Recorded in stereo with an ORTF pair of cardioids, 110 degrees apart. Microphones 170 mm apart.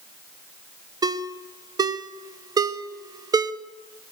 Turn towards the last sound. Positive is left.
turn(degrees=-25)